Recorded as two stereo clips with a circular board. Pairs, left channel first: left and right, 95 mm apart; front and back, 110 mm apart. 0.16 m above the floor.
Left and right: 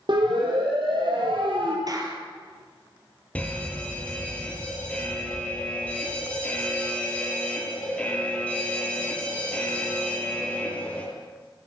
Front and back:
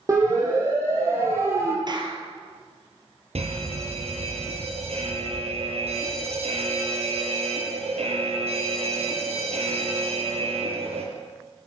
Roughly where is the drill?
No drill in this recording.